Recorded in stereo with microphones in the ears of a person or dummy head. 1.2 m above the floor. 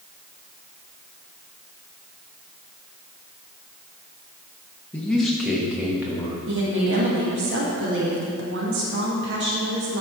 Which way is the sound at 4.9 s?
10° left (ahead or behind).